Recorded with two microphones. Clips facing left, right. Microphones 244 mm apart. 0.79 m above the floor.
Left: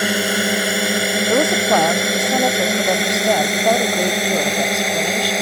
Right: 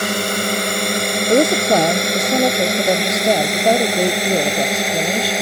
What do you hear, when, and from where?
0.0 s a drone: 10° left (ahead or behind); by 5.4 s centre (ahead or behind)
1.3 s a woman speaking: 25° right (ahead or behind)